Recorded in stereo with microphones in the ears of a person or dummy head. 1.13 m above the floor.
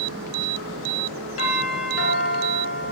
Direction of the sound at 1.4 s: 75° left (ahead or behind).